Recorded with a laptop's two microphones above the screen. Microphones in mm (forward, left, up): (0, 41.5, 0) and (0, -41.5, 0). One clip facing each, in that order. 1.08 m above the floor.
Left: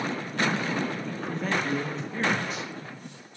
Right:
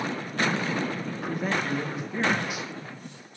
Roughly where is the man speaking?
Centre.